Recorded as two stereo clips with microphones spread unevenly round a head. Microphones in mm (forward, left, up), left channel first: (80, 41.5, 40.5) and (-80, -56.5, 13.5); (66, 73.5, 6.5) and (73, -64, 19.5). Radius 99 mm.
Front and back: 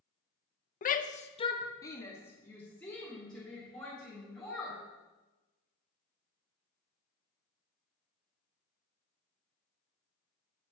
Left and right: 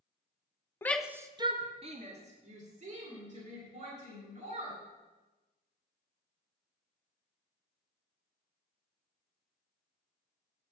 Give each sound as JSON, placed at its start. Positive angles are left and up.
{"t": 0.8, "sound": "a shout", "azimuth_deg": 45, "distance_m": 0.7}